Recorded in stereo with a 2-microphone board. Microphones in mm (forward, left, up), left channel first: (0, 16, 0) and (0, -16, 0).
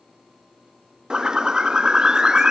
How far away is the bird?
About 0.6 m.